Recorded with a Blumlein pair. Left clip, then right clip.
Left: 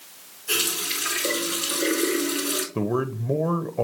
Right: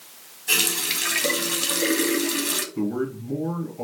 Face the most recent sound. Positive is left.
turn(degrees=45)